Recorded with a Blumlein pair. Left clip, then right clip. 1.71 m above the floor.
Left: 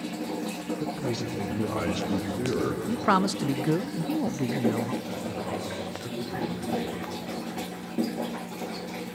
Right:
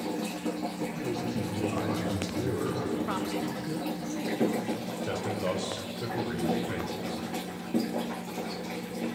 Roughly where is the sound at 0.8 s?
Ahead left.